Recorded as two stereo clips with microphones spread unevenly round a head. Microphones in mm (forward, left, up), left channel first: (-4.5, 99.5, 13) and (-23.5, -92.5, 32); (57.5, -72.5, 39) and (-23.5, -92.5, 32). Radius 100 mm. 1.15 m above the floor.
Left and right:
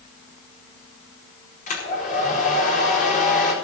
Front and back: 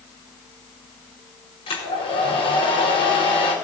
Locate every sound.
1.7 s a hair dryer: 35° left, 4.5 m